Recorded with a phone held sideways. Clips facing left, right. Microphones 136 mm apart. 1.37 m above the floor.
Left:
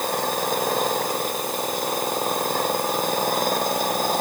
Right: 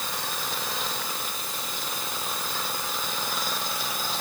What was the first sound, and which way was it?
An engine running, 50° left (ahead or behind).